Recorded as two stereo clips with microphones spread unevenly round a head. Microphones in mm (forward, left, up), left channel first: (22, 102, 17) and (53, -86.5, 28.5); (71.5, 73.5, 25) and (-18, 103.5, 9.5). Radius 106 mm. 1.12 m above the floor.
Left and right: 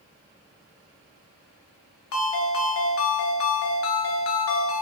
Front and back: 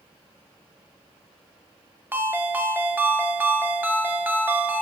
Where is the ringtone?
90° left, 0.6 m.